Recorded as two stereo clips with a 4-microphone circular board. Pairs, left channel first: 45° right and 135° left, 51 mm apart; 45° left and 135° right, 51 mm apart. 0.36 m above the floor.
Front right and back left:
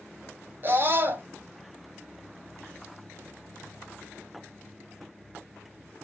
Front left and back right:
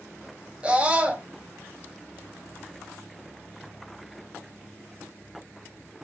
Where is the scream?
165° left, 2.5 m.